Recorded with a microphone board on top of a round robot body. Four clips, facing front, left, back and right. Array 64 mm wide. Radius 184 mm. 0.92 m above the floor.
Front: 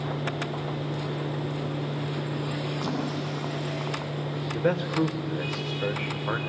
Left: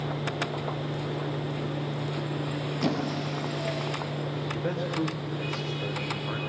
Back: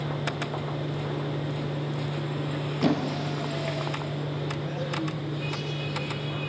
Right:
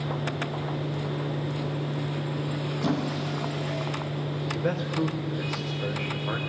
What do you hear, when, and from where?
2.8 s a squeak: 155° left, 5.5 m
4.5 s a man speaking: 10° right, 3.5 m